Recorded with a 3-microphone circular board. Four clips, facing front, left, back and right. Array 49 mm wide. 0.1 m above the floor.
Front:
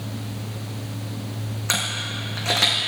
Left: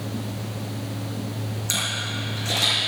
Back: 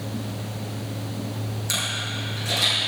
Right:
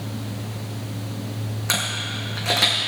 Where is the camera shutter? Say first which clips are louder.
Right 2 dB, front 3 dB; 40° right, 3.5 m.